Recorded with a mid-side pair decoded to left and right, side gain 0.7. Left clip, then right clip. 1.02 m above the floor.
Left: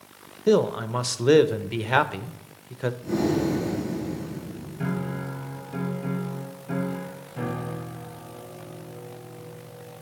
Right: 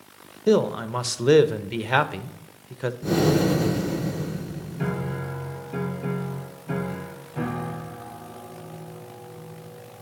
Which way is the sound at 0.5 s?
5° right.